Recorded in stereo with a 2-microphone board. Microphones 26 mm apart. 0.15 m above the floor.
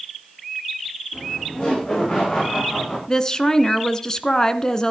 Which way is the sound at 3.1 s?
25° left (ahead or behind).